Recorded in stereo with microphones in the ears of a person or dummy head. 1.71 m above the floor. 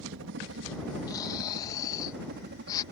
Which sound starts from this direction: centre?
Snoring, at 1.1 s.